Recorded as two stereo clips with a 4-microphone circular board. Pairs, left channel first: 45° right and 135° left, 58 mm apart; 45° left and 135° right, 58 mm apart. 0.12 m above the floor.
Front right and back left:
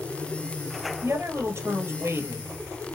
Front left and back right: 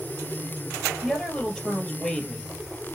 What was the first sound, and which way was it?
A woman speaking, 140° left.